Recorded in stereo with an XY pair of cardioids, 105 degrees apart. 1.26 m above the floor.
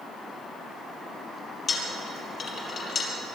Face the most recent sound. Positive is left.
turn(degrees=55)